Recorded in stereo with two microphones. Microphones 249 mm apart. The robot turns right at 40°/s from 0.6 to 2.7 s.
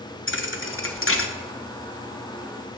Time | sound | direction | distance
0.3 | a thud | 55° left (ahead or behind) | 0.8 m